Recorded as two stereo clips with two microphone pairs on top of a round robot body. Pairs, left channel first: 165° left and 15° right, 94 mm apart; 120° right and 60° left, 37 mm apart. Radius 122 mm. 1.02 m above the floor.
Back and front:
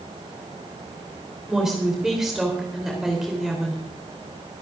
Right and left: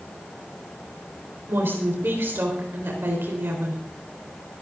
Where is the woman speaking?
70° left, 3.5 m.